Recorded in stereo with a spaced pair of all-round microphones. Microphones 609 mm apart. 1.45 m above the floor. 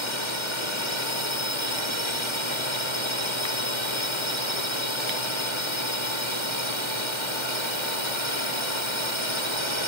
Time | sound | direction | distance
0.0 | a drone | 45° left (ahead or behind) | ?